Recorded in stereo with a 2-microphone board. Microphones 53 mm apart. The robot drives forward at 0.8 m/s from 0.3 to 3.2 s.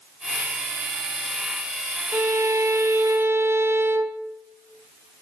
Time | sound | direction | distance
2.1 | a violin | 50° right (ahead or behind) | 0.8 m